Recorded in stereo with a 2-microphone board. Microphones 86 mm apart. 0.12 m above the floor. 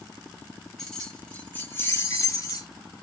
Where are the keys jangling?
5° left (ahead or behind), 1.3 m; by 2.7 s 45° left (ahead or behind), 1.4 m.